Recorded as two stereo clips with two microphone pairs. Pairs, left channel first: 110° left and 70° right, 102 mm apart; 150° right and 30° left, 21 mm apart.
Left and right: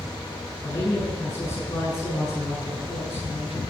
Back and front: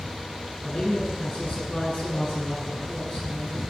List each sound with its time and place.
0.6 s a man speaking: 170° left, 7.5 m